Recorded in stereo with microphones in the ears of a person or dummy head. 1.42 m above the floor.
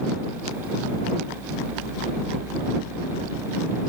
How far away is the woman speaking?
No woman speaking in this recording.